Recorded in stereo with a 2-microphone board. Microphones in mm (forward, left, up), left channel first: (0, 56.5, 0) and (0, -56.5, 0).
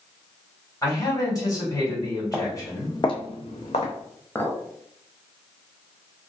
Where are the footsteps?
Centre (ahead or behind), 0.8 m; by 3.9 s 70° left (ahead or behind), 1.0 m.